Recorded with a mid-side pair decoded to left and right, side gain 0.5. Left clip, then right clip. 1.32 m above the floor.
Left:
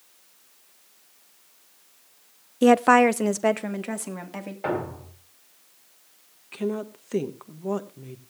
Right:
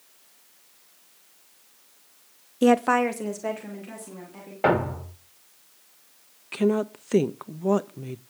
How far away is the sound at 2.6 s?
About 0.6 m.